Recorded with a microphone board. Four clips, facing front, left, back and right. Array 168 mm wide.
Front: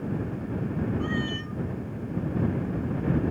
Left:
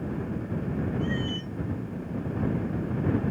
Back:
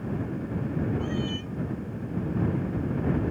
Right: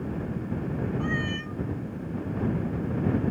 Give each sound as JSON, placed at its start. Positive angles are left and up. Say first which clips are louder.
{"t": 1.0, "sound": "a cat meowing", "louder": "even, front 1 dB", "azimuth_deg": -55}